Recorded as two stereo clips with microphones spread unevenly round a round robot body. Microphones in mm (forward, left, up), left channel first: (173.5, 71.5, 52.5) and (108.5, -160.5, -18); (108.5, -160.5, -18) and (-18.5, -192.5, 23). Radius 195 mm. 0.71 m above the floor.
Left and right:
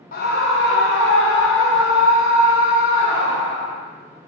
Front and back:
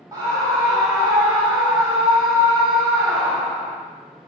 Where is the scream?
125° left, 0.8 m; by 3.8 s 140° left, 4.5 m.